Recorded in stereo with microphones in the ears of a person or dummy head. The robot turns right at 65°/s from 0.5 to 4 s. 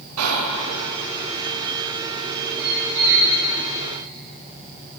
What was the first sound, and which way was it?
Whispering, 85° right.